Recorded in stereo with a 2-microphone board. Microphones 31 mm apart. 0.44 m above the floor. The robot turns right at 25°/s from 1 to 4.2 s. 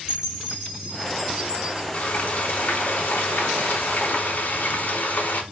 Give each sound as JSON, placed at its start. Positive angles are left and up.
{"t": 0.1, "sound": "a chime", "side_deg": 0, "distance_m": 1.7}
{"t": 1.9, "sound": "frying", "azimuth_deg": 55, "distance_m": 0.6}